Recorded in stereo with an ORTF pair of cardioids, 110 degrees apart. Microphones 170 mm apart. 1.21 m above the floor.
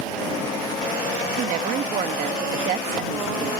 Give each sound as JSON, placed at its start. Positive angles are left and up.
{"t": 1.4, "sound": "a woman speaking", "azimuth_deg": -60}